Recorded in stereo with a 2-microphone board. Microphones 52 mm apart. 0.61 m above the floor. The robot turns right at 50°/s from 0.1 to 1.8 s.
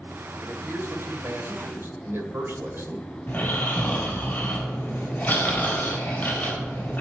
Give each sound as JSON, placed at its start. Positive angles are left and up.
{"t": 0.4, "sound": "a man speaking", "azimuth_deg": -125, "distance_m": 1.8}
{"t": 3.3, "sound": "snoring", "side_deg": 25, "distance_m": 3.5}